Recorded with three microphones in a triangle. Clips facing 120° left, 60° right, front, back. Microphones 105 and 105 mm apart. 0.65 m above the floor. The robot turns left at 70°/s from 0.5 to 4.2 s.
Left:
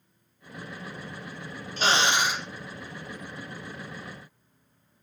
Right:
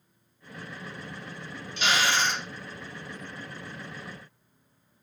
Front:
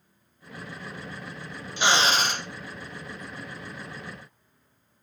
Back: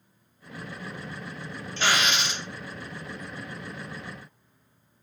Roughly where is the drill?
Left.